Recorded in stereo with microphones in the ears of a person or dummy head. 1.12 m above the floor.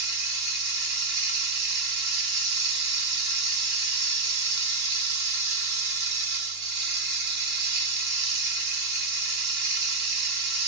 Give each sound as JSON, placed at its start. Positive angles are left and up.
{"t": 0.0, "sound": "running water", "side_deg": -45, "distance_m": 1.3}